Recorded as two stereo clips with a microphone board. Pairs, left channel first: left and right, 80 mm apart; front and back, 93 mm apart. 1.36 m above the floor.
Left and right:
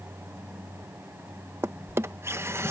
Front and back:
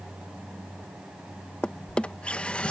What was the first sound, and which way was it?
A drawer, 65° right.